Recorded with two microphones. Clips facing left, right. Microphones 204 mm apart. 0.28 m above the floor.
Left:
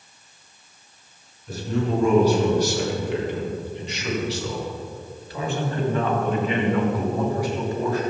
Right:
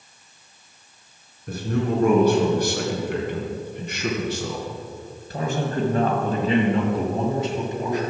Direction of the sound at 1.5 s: 55° right (ahead or behind).